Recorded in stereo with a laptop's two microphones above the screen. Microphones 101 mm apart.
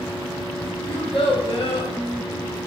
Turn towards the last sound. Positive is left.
turn(degrees=65)  # may be behind; listen again after turning